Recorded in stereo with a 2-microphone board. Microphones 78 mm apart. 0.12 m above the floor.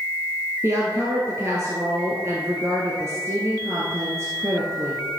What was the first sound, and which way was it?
A woman speaking, 35° right (ahead or behind).